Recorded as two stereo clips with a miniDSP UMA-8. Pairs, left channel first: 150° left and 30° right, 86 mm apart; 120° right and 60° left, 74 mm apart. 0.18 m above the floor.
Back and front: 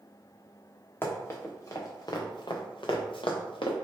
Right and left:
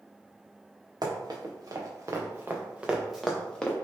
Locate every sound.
1.0 s running footsteps: 85° left, 1.6 m; by 3.7 s 170° left, 1.2 m